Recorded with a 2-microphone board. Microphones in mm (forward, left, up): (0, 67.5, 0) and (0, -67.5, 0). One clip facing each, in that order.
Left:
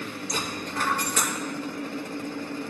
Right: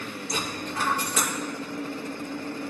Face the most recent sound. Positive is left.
turn(degrees=-5)  # may be behind; listen again after turning